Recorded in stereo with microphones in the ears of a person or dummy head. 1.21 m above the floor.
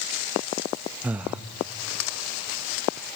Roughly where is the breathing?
Centre.